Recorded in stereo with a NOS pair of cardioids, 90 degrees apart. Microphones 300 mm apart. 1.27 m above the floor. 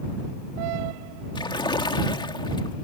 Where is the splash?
15° left.